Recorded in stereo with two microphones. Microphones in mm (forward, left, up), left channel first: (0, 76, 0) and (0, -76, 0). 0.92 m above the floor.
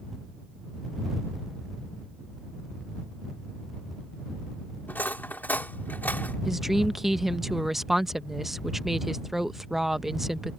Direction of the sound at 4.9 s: 10° left (ahead or behind).